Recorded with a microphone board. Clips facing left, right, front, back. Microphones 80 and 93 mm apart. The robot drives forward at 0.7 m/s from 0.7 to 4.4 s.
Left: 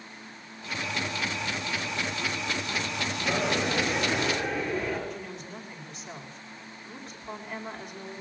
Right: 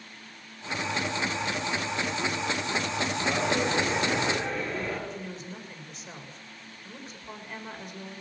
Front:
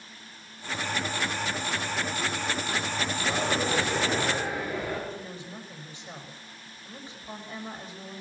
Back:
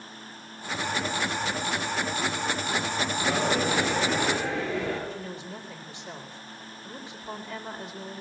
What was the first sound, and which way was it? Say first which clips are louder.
A dropped coin: even, back 2 dB; 175° left.